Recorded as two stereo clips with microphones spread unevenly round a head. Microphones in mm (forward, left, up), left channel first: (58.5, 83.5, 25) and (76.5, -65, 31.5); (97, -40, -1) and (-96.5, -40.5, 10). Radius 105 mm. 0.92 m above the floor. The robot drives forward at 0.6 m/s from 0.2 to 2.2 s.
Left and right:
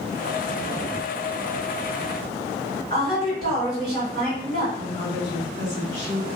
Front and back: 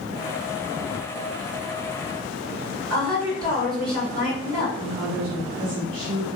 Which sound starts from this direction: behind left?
A woman speaking, at 4.8 s.